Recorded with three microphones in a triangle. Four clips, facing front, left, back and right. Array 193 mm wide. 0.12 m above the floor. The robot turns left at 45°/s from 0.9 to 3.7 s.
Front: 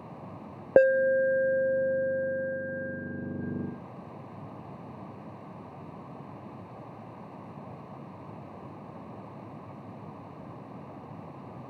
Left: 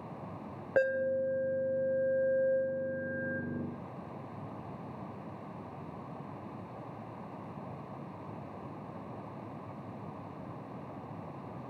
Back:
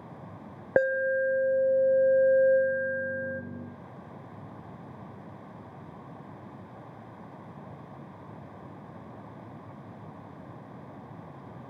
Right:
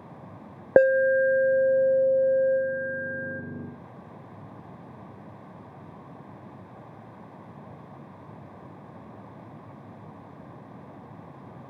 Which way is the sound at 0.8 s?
70° right.